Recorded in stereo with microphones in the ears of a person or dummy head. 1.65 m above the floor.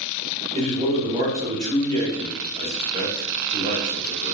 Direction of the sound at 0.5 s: 35° right (ahead or behind).